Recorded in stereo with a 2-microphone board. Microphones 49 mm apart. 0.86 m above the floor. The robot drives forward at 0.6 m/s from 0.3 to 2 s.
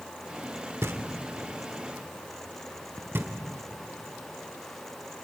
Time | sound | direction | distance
0.8 | knocking | 70° right (ahead or behind) | 1.6 m